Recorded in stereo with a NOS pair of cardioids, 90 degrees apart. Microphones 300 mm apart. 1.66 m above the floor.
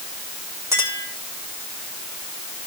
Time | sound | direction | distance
0.7 | a clink | 10° right | 4.5 m